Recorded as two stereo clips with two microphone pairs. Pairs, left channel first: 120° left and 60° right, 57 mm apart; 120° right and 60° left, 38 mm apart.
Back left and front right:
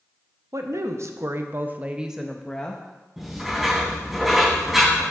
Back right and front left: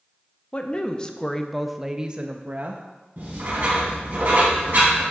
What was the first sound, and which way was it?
A woman speaking, 65° right.